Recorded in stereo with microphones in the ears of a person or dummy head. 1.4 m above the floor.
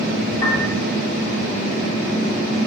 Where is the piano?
25° left (ahead or behind), 4.5 m.